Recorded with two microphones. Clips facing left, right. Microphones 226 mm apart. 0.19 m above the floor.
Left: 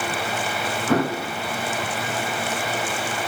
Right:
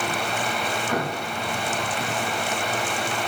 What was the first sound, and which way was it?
An explosion, 85° left.